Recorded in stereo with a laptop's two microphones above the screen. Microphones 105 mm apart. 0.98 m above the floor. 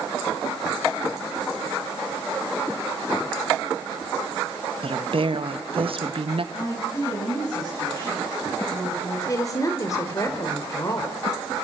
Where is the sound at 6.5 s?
40° left (ahead or behind), 9.5 m.